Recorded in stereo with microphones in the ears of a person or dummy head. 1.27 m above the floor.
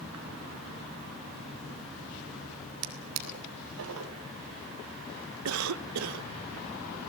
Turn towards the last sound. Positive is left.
turn(degrees=-75)  # may be behind; listen again after turning